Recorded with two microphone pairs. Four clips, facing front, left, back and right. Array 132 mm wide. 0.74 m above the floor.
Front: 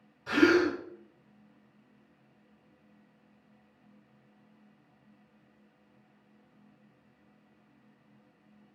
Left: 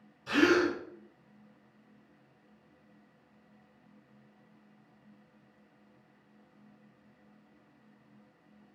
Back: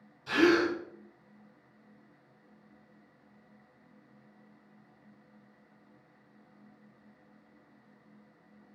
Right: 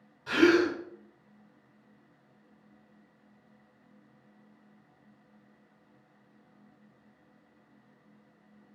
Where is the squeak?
I don't hear a squeak.